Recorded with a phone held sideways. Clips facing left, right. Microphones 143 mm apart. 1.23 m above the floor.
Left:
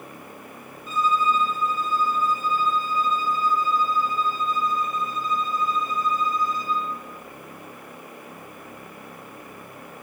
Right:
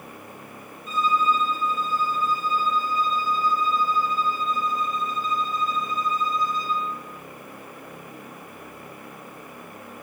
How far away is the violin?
About 1.6 m.